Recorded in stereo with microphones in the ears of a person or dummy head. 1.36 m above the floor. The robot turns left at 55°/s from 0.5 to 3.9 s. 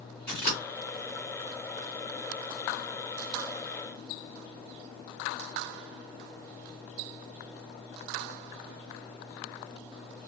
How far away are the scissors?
About 1.3 m.